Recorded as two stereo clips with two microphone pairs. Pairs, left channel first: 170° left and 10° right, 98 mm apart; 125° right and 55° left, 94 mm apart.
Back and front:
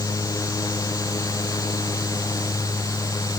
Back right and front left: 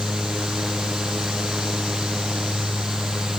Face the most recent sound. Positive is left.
No sound to turn to.